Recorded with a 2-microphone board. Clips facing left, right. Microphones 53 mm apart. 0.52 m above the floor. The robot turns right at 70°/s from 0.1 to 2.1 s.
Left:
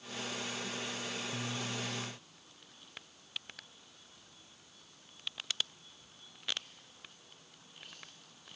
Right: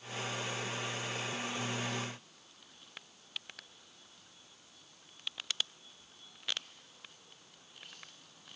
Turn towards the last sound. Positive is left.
No sound to turn to.